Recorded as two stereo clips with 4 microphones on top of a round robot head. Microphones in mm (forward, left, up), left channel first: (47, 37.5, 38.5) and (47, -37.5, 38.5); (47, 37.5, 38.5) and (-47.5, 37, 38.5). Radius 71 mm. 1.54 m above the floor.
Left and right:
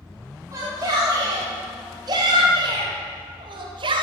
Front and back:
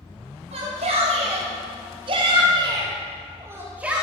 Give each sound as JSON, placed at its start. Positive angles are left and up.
{"t": 0.5, "sound": "a shout", "azimuth_deg": -150, "distance_m": 5.0}